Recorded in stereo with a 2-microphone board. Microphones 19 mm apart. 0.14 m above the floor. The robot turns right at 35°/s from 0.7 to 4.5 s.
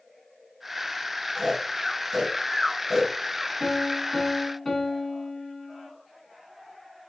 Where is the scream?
I don't hear a scream.